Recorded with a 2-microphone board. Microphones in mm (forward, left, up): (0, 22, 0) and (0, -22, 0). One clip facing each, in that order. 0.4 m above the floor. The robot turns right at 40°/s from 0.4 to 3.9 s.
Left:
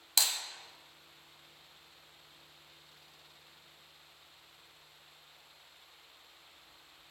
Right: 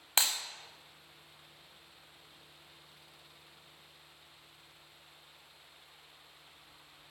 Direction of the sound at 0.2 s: 35° right (ahead or behind).